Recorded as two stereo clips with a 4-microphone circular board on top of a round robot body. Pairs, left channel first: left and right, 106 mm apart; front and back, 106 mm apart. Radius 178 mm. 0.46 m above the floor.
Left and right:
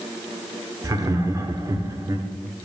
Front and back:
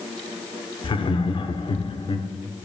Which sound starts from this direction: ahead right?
Laughter, at 0.8 s.